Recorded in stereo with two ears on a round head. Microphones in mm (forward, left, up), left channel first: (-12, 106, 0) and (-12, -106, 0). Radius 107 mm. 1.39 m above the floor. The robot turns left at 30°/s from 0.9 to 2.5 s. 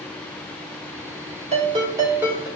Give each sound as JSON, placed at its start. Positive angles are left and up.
{"t": 1.5, "sound": "a ringtone", "side_deg": -30, "distance_m": 2.5}